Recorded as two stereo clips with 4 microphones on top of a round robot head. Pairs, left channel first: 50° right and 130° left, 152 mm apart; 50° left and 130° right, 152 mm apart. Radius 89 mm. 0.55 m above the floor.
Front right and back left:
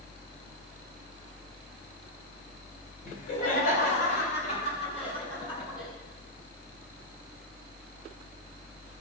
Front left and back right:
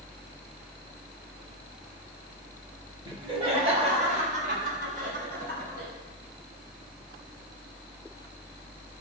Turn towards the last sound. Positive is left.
turn(degrees=-115)